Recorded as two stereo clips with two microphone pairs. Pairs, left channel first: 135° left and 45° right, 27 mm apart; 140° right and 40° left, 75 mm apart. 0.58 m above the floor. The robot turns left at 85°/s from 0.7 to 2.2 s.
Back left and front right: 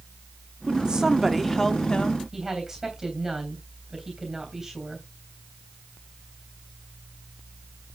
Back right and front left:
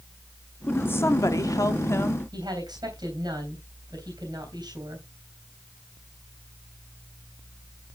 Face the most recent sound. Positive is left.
turn(degrees=30)